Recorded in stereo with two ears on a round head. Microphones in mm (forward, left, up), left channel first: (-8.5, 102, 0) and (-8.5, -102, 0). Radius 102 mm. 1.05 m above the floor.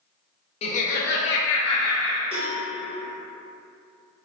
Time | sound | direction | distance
0.6 | laughter | 25° left (ahead or behind) | 0.5 m
2.3 | a cowbell | 25° right (ahead or behind) | 1.0 m